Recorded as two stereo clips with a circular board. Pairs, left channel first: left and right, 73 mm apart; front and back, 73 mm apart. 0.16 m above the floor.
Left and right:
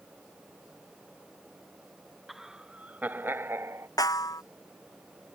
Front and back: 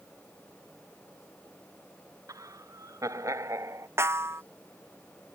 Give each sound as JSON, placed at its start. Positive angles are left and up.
{"t": 2.3, "sound": "laughter", "azimuth_deg": -175}
{"t": 4.0, "sound": "a snare drum", "azimuth_deg": 125}